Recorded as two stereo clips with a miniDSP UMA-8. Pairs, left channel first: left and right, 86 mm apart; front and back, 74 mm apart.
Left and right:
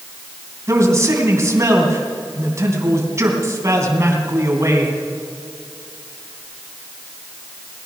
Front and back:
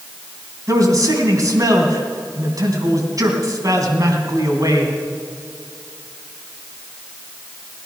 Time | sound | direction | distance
0.7 | a man speaking | 145° right | 3 m